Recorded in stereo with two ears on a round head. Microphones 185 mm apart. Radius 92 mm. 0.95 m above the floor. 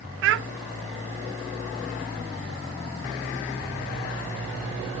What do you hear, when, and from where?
0.2 s a child speaking: 65° right (ahead or behind), 0.5 m